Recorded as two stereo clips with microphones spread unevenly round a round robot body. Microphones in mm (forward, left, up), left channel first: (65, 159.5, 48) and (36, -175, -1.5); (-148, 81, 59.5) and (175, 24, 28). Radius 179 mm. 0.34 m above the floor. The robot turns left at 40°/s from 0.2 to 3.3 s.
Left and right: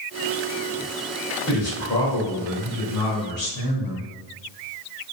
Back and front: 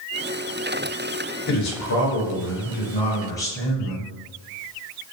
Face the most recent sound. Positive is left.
turn(degrees=90)